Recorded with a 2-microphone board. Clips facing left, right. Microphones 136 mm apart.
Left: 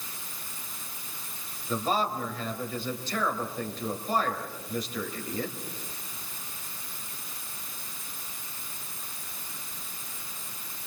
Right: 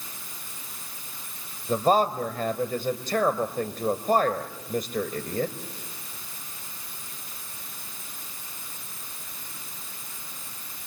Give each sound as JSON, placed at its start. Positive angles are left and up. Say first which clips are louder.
{"t": 1.7, "sound": "a man speaking", "louder": "right 7 dB", "side_deg": -50, "distance_m": 2.5}